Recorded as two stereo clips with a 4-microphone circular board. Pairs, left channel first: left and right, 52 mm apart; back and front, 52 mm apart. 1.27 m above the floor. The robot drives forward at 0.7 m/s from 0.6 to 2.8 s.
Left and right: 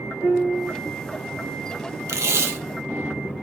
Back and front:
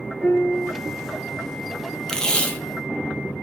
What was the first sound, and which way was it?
A piano, 100° right.